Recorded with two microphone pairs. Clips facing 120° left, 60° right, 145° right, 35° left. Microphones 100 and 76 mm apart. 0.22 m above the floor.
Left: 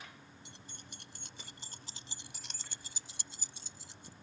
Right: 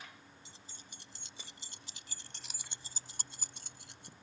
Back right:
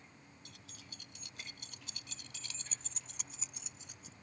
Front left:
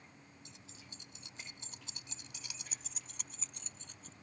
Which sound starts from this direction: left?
Keys jangling, at 0.5 s.